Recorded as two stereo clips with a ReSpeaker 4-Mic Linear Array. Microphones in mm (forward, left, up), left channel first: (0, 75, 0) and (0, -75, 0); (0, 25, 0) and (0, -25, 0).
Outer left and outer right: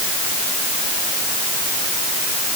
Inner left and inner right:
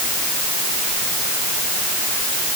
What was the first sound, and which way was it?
Only background noise.